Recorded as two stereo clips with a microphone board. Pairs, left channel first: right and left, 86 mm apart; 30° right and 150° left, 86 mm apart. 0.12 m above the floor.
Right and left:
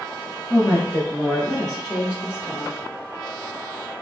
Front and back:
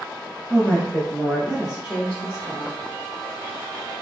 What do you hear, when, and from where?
0.5 s a woman speaking: 80° right, 1.9 m; by 2.7 s 160° left, 2 m